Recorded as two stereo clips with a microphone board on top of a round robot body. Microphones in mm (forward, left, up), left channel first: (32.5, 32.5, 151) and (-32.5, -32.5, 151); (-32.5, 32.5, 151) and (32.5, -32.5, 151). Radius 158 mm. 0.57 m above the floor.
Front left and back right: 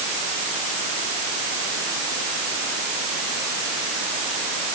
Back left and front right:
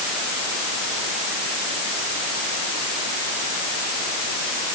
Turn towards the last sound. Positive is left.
No sound to turn to.